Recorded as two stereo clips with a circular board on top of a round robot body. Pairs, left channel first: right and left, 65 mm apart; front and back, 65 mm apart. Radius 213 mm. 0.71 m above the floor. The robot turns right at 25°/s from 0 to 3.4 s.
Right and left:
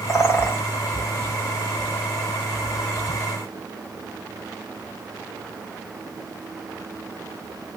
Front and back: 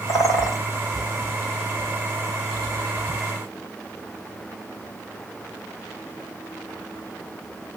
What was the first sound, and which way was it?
A bird, 45° right.